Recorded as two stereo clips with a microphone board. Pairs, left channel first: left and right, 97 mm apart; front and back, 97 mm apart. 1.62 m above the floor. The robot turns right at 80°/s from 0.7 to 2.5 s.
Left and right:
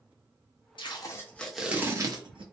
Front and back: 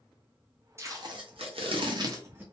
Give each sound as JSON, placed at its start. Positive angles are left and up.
{"t": 0.8, "sound": "tape being pulled", "azimuth_deg": 120, "distance_m": 0.7}